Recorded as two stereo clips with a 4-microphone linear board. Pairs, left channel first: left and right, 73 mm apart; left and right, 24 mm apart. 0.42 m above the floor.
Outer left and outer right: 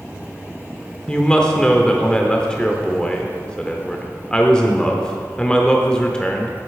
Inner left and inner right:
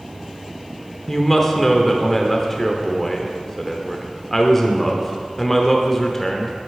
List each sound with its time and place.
1.1 s a woman speaking: 10° left (ahead or behind), 0.8 m